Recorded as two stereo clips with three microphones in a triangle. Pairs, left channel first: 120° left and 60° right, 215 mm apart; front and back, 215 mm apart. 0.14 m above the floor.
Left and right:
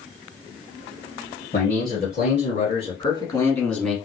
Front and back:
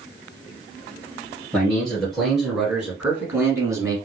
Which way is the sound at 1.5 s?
85° left.